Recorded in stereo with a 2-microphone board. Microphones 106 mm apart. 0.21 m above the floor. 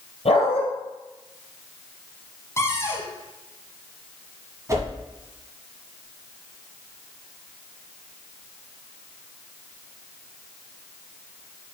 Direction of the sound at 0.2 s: 75° left (ahead or behind).